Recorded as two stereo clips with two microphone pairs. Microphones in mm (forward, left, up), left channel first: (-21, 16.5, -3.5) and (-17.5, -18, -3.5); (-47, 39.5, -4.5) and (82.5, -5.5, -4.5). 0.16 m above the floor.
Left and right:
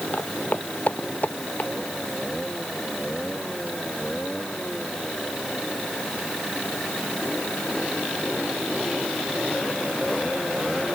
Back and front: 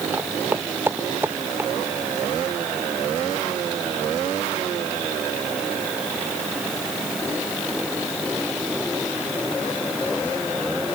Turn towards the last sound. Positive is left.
turn(degrees=55)